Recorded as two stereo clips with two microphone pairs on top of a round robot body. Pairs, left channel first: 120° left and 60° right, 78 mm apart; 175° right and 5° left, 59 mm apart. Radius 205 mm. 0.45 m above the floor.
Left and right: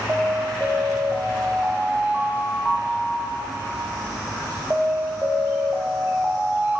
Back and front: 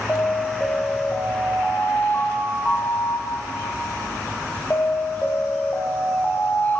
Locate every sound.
0.1 s an alarm: 120° right, 1.9 m